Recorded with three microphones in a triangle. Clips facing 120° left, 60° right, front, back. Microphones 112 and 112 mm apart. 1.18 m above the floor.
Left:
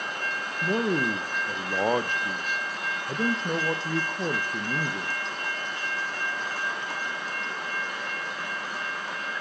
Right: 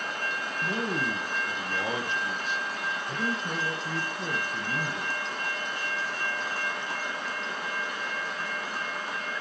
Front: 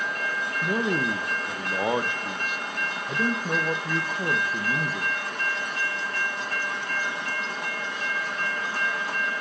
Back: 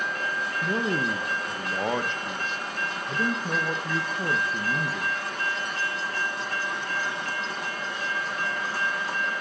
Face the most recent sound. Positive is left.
turn(degrees=80)